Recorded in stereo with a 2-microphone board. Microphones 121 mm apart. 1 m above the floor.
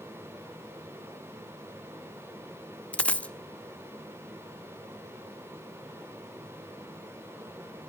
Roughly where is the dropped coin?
Centre.